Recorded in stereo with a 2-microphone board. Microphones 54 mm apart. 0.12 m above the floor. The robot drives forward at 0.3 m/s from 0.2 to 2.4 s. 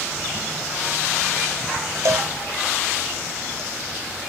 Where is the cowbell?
75° right (ahead or behind), 0.5 m; by 3.6 s 65° right (ahead or behind), 0.6 m.